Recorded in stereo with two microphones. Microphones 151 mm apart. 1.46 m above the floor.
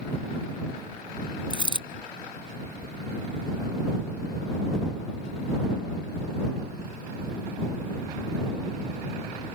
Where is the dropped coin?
30° left (ahead or behind).